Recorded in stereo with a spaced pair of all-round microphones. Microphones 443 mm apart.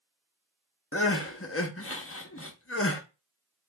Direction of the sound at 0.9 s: 30° left (ahead or behind).